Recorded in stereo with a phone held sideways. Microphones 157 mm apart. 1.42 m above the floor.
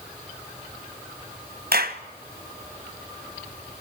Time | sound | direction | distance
1.7 | a clap | 70° right (ahead or behind) | 1.3 m